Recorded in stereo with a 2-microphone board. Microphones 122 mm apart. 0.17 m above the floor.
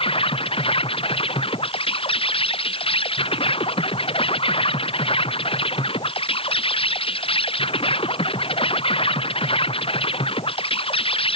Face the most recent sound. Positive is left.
turn(degrees=50)  # may be behind; listen again after turning